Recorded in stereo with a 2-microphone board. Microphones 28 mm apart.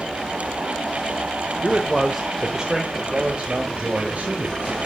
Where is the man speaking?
5° left (ahead or behind), 1.0 m; by 4.8 s 55° right (ahead or behind), 2 m.